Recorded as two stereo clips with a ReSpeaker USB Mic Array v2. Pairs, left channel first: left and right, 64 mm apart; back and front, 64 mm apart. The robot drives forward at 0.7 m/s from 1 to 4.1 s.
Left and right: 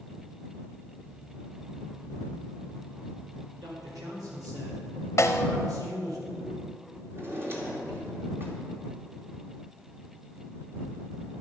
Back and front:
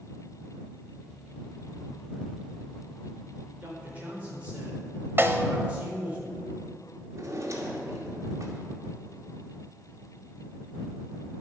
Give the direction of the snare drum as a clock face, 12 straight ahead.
10 o'clock.